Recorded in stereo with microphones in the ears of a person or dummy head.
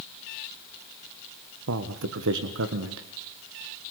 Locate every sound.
1.7 s a man speaking: 75° right (ahead or behind), 1.5 m